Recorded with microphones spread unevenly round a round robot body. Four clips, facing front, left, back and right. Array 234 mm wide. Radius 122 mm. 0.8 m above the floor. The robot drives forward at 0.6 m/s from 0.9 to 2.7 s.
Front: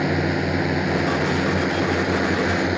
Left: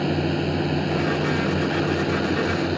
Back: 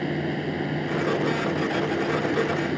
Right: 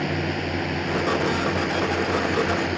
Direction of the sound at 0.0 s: 10° left.